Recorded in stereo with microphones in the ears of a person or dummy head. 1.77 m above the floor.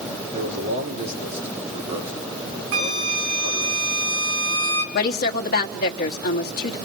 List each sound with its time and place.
0.3 s a man speaking: 50° right (ahead or behind), 4 m
2.7 s a flute: 65° right (ahead or behind), 3 m
4.9 s a woman speaking: 50° left (ahead or behind), 1.6 m